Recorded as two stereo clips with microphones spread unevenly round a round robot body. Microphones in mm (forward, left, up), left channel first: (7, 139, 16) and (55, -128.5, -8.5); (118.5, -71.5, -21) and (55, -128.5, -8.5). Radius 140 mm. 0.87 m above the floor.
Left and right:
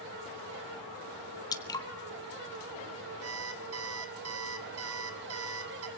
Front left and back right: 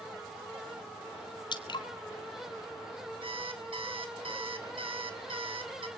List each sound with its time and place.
1.5 s dripping: 20° left, 1.8 m
3.2 s an alarm clock: 125° right, 2 m